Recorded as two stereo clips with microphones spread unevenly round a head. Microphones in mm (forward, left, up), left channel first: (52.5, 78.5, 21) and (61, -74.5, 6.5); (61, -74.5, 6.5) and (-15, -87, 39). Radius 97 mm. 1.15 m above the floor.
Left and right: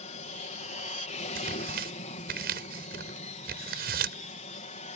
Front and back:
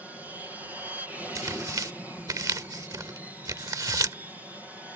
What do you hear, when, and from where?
0.0 s an aircraft: 95° left
1.4 s tearing paper: 130° right